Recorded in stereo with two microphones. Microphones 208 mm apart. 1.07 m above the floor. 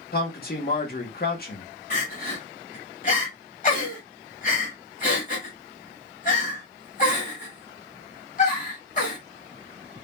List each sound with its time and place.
0.1 s a man speaking: 50° left (ahead or behind), 0.9 m
1.9 s crying: 40° left (ahead or behind), 1.1 m